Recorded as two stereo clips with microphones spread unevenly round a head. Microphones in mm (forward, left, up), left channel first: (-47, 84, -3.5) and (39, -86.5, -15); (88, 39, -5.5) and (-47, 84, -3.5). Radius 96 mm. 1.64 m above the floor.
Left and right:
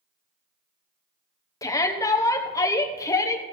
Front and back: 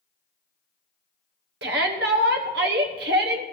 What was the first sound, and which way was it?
A shout, 170° right.